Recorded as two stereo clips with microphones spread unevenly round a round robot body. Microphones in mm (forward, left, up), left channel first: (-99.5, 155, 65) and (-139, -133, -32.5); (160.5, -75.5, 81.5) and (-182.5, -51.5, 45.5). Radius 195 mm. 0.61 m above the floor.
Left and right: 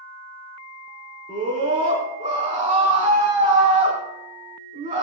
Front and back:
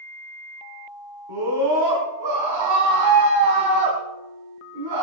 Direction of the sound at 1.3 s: 170° right.